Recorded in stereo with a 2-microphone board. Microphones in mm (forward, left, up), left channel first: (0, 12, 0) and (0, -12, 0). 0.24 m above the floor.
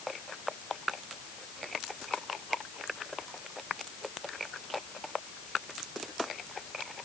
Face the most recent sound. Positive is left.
No sound to turn to.